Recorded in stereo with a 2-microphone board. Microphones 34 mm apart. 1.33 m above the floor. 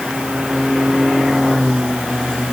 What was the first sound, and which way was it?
Only background noise.